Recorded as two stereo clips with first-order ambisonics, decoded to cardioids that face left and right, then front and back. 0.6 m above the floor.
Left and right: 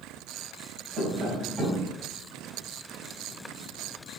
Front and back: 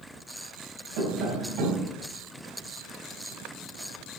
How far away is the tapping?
About 4 m.